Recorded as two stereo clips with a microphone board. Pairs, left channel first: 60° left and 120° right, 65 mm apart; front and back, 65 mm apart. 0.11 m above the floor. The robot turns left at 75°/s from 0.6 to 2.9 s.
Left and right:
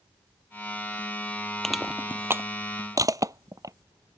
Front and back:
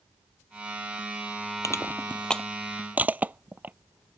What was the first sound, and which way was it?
Crushing, 25° right.